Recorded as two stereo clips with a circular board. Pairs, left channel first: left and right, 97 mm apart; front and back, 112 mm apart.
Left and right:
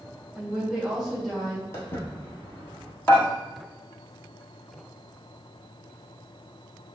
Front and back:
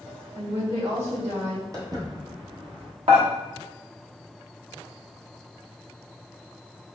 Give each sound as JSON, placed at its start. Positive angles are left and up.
{"t": 0.3, "sound": "a woman speaking", "azimuth_deg": -160, "distance_m": 2.0}
{"t": 1.7, "sound": "footsteps", "azimuth_deg": 135, "distance_m": 1.5}
{"t": 3.1, "sound": "dishes clattering", "azimuth_deg": 160, "distance_m": 1.2}